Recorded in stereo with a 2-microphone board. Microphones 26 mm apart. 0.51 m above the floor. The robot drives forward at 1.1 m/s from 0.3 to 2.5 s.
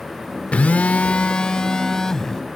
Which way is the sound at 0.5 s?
60° left (ahead or behind).